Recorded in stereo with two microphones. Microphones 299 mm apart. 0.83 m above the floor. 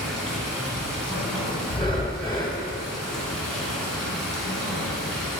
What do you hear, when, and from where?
0.0 s running water: centre (ahead or behind), 2.5 m
1.7 s breathing: 15° left (ahead or behind), 1.0 m